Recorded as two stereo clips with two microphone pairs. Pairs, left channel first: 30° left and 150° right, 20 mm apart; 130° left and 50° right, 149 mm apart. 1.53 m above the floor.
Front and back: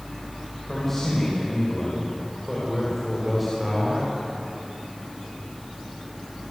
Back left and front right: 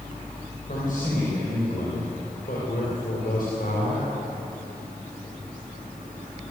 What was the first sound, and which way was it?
A man speaking, 105° left.